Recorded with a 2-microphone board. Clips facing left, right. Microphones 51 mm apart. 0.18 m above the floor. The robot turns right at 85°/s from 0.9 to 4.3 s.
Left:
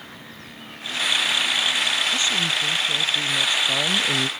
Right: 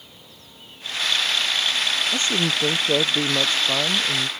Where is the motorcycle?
70° left (ahead or behind); by 4.4 s centre (ahead or behind).